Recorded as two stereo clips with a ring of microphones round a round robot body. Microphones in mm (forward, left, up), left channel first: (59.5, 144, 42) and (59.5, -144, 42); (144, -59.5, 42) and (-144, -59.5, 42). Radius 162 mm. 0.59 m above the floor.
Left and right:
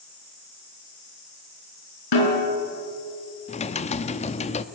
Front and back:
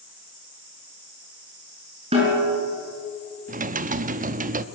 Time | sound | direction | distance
2.1 | a snare drum | 105° left | 5.5 m
3.5 | typing on a keyboard | 140° left | 0.7 m